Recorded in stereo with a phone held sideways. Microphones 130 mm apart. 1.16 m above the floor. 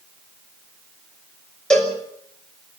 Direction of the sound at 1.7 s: 5° left (ahead or behind).